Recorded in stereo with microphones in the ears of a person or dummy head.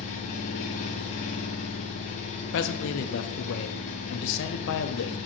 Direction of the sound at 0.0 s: 25° left (ahead or behind).